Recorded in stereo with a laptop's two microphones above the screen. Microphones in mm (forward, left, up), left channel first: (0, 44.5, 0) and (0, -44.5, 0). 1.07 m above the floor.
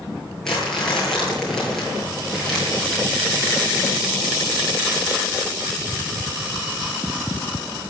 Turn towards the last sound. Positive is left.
turn(degrees=5)  # may be behind; listen again after turning